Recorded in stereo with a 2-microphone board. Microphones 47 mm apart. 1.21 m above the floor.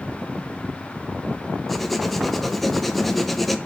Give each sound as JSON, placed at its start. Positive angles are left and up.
{"t": 1.7, "sound": "writing", "side_deg": 0, "distance_m": 0.6}